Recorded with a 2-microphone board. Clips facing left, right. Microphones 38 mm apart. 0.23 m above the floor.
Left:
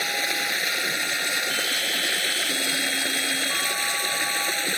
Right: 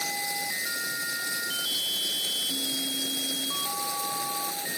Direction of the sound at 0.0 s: 60° left (ahead or behind).